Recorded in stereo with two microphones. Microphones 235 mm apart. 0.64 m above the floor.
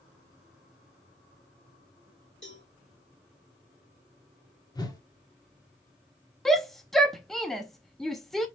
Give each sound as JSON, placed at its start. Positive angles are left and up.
{"t": 2.4, "sound": "a cowbell", "side_deg": 60, "distance_m": 3.0}
{"t": 4.8, "sound": "a whoosh", "side_deg": 20, "distance_m": 1.4}
{"t": 6.5, "sound": "a shout", "side_deg": 0, "distance_m": 0.6}